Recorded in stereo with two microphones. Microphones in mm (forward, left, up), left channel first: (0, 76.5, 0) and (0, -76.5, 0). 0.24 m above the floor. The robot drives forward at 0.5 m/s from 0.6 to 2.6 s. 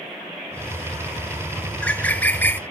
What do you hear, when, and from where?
1.7 s a bird: 10° left (ahead or behind), 0.7 m